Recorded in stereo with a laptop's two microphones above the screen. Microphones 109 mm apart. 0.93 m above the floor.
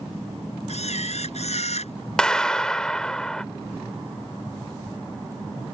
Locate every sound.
0.7 s a camera shutter: 85° left
2.2 s a clap: 5° left (ahead or behind)